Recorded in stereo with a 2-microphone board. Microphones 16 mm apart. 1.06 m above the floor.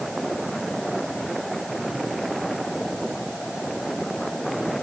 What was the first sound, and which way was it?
Only background noise.